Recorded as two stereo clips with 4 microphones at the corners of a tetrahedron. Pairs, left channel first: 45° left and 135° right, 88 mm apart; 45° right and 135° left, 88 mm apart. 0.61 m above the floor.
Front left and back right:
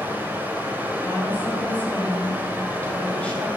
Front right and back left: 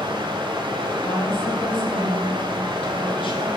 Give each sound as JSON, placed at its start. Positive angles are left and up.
{"t": 0.0, "sound": "running water", "azimuth_deg": 155, "distance_m": 1.6}
{"t": 1.0, "sound": "a woman speaking", "azimuth_deg": -30, "distance_m": 2.5}